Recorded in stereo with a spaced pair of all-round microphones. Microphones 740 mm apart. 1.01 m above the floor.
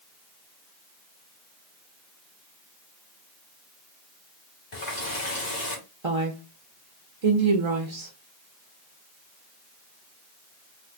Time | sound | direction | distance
4.7 | a running tap | 65° left (ahead or behind) | 1.7 m
6.0 | a woman speaking | 45° right (ahead or behind) | 0.6 m